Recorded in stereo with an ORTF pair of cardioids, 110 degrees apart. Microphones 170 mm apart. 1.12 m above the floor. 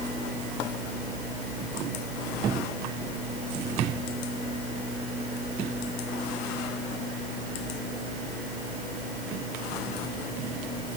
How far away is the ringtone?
No ringtone in this recording.